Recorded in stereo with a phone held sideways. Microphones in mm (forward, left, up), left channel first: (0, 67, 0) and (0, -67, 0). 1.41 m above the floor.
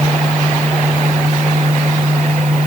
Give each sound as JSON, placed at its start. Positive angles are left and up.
{"t": 0.0, "sound": "a fan", "side_deg": -60}